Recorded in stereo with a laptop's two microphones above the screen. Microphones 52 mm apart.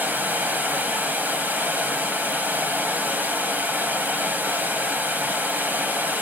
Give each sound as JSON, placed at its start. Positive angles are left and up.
{"t": 0.0, "sound": "running water", "side_deg": -35, "distance_m": 2.0}